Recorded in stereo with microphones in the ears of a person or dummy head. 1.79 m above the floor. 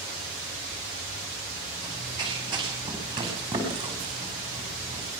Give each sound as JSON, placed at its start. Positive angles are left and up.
{"t": 1.8, "sound": "running footsteps", "side_deg": -25, "distance_m": 7.5}